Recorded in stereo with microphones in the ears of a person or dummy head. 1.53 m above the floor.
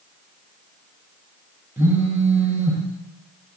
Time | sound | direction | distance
1.8 | a phone buzzing | 15° right (ahead or behind) | 1.7 m